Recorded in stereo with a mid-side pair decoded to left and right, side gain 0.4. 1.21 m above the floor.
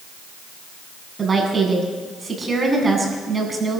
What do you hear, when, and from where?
1.2 s a woman speaking: 30° right, 8.5 m